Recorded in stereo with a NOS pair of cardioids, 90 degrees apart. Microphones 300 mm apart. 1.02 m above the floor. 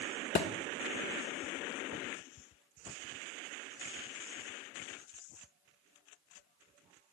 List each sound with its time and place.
0.3 s a thud: 40° left, 1.4 m